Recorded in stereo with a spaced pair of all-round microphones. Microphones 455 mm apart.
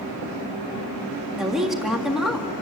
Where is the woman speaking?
Centre (ahead or behind), 1.9 m.